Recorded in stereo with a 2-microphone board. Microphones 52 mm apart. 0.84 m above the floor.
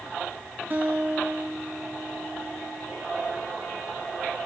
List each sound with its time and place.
0.7 s a guitar: 35° right (ahead or behind), 2.5 m